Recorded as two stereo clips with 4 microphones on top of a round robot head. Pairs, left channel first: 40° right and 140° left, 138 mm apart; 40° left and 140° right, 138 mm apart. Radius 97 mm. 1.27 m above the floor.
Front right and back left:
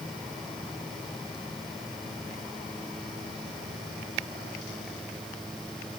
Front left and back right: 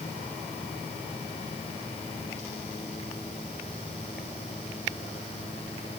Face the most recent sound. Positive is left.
No sound to turn to.